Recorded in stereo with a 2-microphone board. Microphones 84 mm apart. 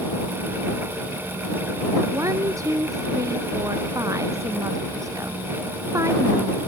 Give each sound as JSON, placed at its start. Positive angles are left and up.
{"t": 2.1, "sound": "a woman speaking", "side_deg": -40}